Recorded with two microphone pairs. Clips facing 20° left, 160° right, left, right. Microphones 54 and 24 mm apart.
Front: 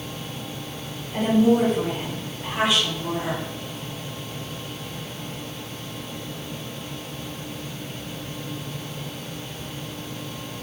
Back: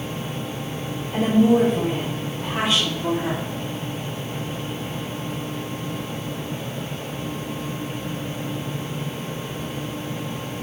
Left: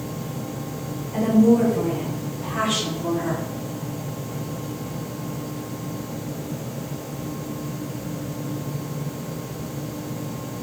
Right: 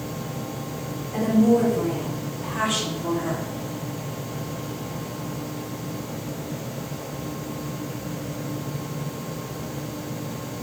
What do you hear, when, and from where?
1.1 s a woman speaking: 175° left, 2.5 m; by 3.4 s 145° left, 3 m